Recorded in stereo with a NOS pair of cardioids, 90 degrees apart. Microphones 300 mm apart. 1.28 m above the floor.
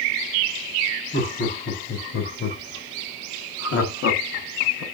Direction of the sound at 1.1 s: 35° left.